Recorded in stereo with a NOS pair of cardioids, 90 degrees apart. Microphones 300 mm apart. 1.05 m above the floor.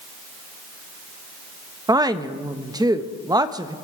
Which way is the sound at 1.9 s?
10° right.